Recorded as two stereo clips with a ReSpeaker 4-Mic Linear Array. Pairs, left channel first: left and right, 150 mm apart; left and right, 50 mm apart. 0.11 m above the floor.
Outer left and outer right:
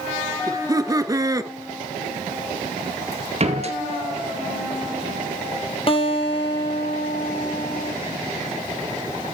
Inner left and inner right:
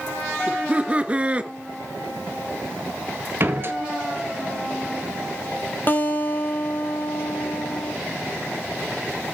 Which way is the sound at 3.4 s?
45° right (ahead or behind).